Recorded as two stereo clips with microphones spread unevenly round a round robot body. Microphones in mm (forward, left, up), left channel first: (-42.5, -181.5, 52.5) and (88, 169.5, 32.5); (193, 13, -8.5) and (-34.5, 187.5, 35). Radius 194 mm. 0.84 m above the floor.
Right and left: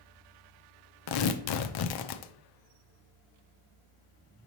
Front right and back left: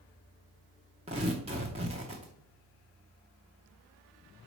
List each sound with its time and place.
1.1 s tearing paper: 145° right, 0.5 m